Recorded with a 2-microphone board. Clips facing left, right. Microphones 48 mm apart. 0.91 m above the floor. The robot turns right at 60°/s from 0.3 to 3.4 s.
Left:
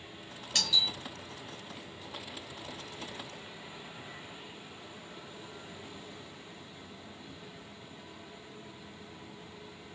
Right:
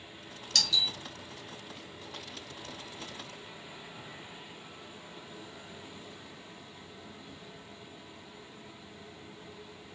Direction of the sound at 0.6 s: 20° left (ahead or behind).